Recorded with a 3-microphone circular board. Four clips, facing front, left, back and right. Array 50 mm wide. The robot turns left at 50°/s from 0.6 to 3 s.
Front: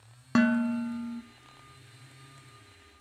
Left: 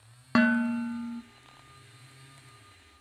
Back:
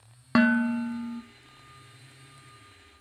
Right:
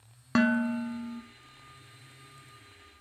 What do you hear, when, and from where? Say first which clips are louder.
0.3 s dishes clattering: left 2 dB, back 3 dB; 150° left, 0.7 m; by 1.2 s 120° left, 0.7 m